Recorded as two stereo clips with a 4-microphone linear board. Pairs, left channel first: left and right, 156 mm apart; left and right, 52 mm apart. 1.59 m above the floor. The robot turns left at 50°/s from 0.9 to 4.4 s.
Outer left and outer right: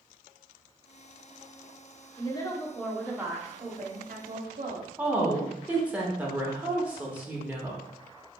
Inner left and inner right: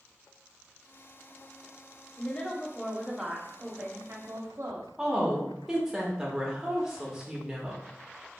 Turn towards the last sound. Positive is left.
turn(degrees=-10)  # may be behind; listen again after turning